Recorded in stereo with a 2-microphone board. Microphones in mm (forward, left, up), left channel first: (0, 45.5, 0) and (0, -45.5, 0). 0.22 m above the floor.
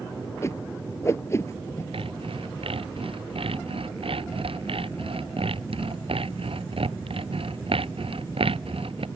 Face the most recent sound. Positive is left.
turn(degrees=-80)